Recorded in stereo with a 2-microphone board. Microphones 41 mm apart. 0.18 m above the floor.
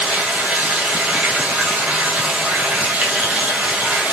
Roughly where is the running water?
Right.